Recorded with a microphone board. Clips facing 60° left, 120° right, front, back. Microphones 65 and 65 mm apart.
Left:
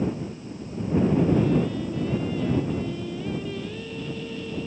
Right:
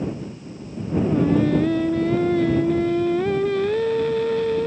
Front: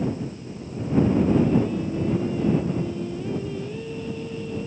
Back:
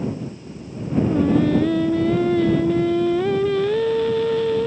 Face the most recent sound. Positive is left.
turn(degrees=-155)